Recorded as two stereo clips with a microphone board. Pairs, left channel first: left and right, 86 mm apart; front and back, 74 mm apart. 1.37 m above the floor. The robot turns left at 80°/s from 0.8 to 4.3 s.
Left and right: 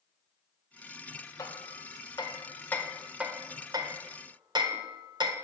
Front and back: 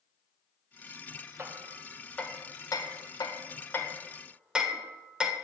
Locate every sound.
1.4 s hammering: 130° left, 1.6 m; by 5.3 s 105° right, 1.6 m